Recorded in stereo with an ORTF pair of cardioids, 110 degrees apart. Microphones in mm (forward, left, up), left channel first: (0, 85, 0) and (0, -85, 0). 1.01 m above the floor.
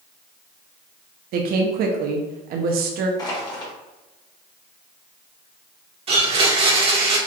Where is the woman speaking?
65° right, 1.0 m.